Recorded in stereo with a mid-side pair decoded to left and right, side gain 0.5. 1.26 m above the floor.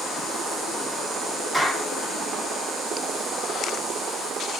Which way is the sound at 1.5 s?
Straight ahead.